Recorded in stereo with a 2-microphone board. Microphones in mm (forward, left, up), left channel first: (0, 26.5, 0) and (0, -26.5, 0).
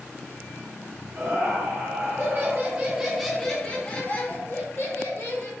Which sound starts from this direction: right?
Laughter, at 1.1 s.